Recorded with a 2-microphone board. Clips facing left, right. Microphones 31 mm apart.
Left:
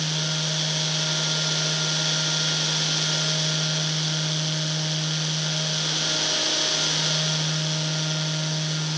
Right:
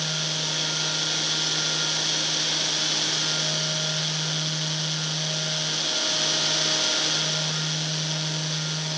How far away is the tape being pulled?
No tape being pulled in this recording.